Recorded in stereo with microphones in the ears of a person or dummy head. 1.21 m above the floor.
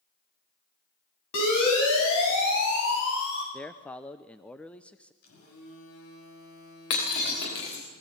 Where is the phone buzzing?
85° left, 6.5 m.